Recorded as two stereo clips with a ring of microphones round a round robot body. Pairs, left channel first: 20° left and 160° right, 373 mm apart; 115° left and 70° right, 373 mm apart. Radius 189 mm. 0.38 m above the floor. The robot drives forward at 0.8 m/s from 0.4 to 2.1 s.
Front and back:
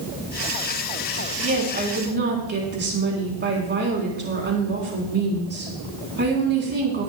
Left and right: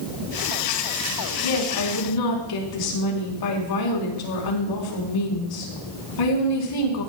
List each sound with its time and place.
1.4 s a woman speaking: 135° left, 3.5 m; by 7.1 s 140° left, 4 m